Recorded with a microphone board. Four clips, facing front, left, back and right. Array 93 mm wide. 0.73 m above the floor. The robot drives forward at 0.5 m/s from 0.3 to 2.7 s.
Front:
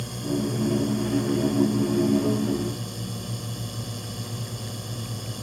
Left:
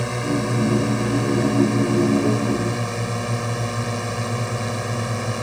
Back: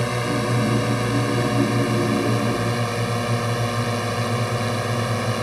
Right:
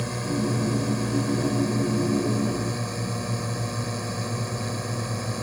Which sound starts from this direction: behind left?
A drone, at 0.0 s.